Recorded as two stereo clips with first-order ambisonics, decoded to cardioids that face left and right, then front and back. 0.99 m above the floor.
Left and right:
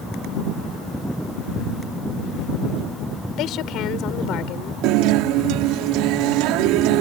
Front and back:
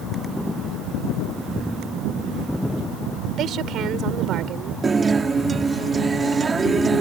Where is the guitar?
110° right.